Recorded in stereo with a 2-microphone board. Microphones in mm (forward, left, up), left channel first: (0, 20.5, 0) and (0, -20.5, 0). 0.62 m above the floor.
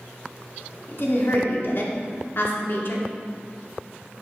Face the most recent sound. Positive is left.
turn(degrees=55)  # may be behind; listen again after turning